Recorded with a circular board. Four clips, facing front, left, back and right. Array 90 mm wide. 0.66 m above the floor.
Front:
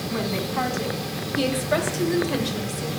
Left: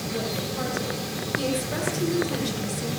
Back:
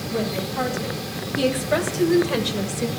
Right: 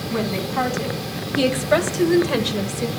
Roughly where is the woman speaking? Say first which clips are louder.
Right 8 dB, back 1 dB; ahead right.